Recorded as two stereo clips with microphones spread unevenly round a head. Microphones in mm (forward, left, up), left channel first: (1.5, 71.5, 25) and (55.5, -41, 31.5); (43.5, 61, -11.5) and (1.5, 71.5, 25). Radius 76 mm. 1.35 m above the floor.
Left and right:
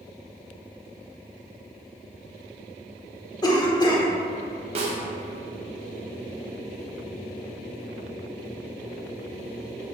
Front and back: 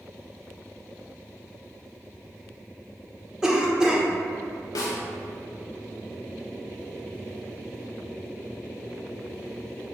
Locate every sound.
3.4 s a cough: 65° left, 0.9 m
4.8 s a snare drum: 30° right, 0.5 m